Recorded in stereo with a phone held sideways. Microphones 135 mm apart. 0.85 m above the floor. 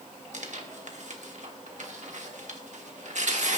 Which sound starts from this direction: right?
Tearing paper, at 0.3 s.